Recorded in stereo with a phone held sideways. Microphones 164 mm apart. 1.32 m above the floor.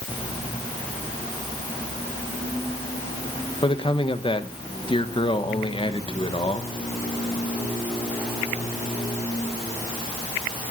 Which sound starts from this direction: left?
A man speaking, at 3.6 s.